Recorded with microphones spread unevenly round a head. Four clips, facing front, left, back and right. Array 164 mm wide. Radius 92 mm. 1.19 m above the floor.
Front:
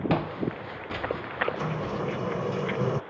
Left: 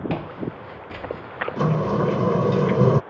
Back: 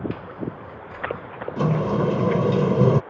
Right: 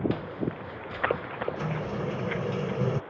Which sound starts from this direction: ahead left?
Footsteps, at 0.1 s.